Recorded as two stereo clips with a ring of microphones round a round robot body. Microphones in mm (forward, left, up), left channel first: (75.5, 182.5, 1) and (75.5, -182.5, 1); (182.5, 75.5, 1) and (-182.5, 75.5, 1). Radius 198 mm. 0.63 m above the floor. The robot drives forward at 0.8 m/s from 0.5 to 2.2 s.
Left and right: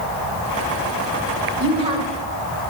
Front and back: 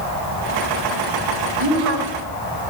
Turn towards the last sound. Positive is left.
turn(degrees=-165)